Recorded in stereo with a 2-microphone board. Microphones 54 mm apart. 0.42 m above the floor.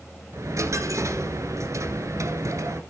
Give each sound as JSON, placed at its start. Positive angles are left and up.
{"t": 0.3, "sound": "a dropped coin", "side_deg": -65, "distance_m": 1.2}